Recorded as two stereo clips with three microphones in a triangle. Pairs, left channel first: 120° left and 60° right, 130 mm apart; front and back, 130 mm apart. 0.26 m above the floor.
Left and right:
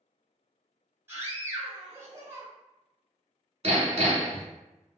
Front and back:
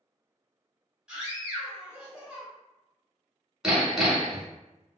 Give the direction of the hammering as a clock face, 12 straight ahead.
3 o'clock.